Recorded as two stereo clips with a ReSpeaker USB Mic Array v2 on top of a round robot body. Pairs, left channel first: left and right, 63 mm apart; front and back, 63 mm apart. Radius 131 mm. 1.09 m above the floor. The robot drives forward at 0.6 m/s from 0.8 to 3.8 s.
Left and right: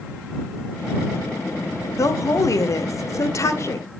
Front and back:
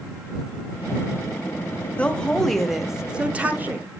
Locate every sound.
2.0 s a woman speaking: 65° left, 1.3 m; by 4.0 s 125° left, 1.4 m